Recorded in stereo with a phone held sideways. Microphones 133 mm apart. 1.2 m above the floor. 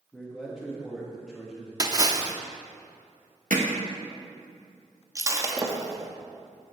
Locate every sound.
0.1 s a man speaking: centre (ahead or behind), 1.6 m
1.8 s a splash: 30° right (ahead or behind), 0.7 m
3.5 s hammering: 75° right (ahead or behind), 1.2 m
5.2 s breaking glass: 25° right (ahead or behind), 1.0 m